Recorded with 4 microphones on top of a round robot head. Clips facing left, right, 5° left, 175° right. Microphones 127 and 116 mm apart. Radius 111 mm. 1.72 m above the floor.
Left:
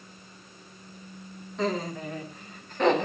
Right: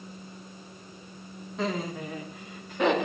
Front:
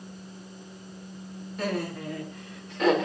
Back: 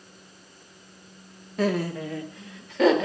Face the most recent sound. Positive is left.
turn(degrees=-175)